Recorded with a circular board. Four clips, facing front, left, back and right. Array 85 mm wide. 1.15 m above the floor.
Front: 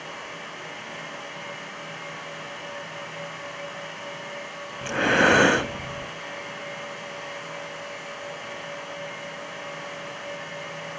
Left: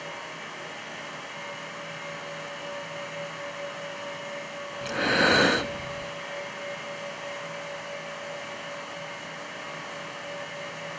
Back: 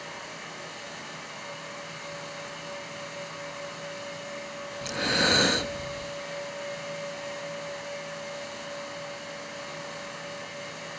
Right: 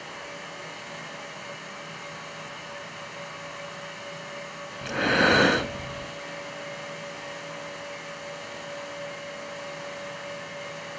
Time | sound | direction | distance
4.8 | breathing | straight ahead | 0.5 m